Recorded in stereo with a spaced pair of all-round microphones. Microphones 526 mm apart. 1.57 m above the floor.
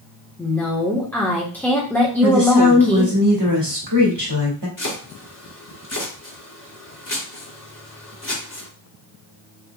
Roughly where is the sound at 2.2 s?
Right.